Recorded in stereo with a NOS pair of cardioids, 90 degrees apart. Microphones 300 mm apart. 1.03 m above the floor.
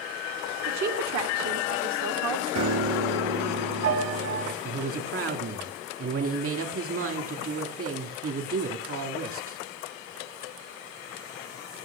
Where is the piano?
50° right, 1.8 m.